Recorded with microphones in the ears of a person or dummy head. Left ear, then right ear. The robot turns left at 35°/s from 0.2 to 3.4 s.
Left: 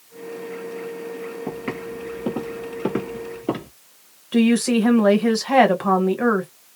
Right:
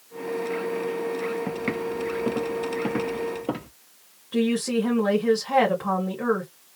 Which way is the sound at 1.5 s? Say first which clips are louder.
Right 2 dB; 25° right (ahead or behind).